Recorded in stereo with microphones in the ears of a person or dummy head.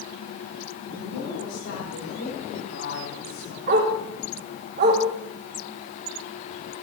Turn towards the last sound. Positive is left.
turn(degrees=-45)  # may be behind; listen again after turning